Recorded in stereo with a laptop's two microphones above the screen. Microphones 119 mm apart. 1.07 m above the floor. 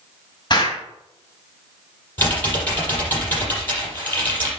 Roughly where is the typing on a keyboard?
Centre.